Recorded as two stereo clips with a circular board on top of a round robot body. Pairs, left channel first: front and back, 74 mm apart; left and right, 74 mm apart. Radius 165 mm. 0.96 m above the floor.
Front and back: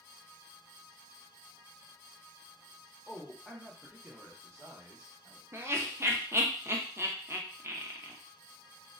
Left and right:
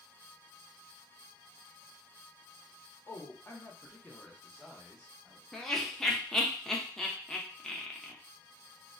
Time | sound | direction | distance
3.1 | a man speaking | 70° left | 1.0 m
5.5 | laughter | 170° left | 0.8 m